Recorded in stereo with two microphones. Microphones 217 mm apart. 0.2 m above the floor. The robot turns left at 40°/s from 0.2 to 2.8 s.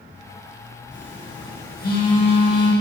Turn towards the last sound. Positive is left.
turn(degrees=15)